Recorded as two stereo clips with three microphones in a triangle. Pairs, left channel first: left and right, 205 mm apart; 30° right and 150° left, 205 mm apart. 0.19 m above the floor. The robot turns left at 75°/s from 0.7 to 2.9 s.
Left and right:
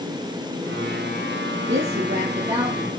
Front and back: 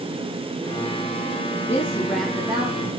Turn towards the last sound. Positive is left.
turn(degrees=-170)